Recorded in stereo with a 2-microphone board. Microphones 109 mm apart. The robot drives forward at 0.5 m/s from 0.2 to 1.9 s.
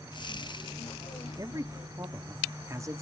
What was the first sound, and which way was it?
A man speaking, 35° right (ahead or behind).